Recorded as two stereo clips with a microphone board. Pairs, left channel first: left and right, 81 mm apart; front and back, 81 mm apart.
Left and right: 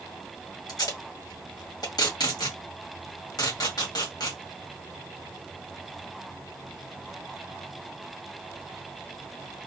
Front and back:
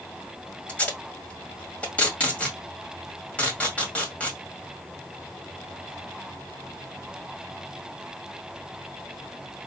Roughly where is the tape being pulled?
Left.